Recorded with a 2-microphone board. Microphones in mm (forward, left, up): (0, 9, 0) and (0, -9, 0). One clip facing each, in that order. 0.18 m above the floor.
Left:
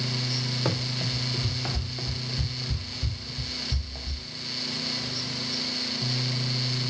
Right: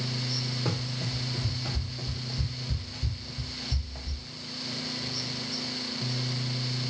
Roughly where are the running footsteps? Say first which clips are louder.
Left 4 dB; left.